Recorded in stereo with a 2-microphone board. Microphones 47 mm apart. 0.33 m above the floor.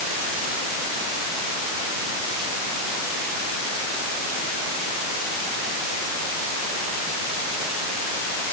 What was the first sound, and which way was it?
Only background noise.